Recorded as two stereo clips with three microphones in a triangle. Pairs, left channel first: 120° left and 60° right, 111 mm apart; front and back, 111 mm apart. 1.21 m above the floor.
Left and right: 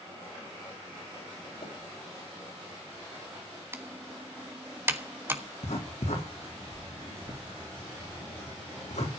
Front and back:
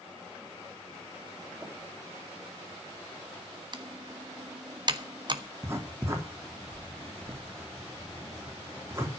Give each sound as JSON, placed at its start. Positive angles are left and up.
{"t": 1.6, "sound": "tapping", "azimuth_deg": 110, "distance_m": 5.0}
{"t": 3.7, "sound": "typing on a keyboard", "azimuth_deg": -130, "distance_m": 1.2}
{"t": 5.6, "sound": "writing", "azimuth_deg": 115, "distance_m": 3.5}